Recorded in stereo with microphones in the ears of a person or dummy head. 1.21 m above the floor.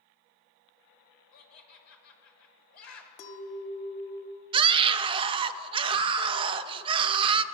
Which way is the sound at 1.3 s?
70° left (ahead or behind).